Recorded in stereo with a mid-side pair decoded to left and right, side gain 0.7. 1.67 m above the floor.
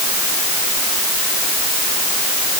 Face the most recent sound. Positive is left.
No sound to turn to.